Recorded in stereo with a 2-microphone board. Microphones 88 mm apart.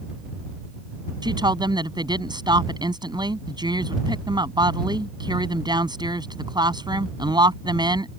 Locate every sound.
1.2 s a woman speaking: 55° right (ahead or behind)